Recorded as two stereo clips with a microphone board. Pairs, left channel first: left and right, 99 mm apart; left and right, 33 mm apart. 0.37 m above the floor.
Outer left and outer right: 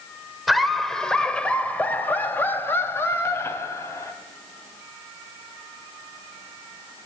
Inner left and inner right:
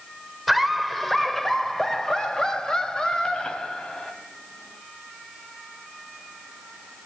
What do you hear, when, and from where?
0.5 s laughter: centre (ahead or behind), 1.5 m; by 4.1 s 30° left (ahead or behind), 3 m